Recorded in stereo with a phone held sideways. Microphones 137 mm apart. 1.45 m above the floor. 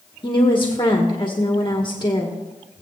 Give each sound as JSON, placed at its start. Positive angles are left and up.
{"t": 0.2, "sound": "a woman speaking", "side_deg": 35, "distance_m": 1.1}